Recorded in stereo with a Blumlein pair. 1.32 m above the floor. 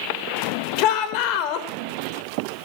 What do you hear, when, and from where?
0.8 s a shout: 40° left, 4 m